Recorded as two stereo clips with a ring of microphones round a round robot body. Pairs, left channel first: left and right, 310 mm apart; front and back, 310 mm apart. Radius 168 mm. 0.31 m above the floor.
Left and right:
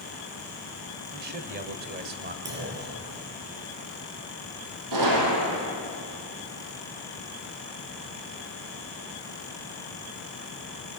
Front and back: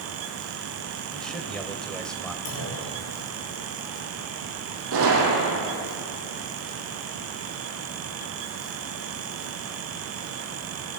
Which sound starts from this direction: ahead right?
A clunk, at 2.5 s.